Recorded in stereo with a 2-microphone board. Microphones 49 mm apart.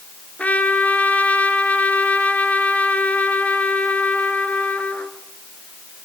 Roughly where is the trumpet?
Left.